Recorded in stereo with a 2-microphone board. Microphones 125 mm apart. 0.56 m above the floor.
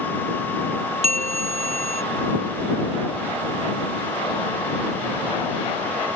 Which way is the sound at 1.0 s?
65° right (ahead or behind).